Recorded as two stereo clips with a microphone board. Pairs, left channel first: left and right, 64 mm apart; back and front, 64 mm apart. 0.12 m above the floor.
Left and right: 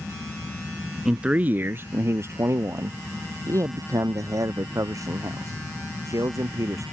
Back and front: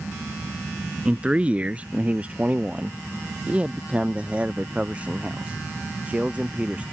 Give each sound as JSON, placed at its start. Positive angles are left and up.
{"t": 1.1, "sound": "a man speaking", "azimuth_deg": -30}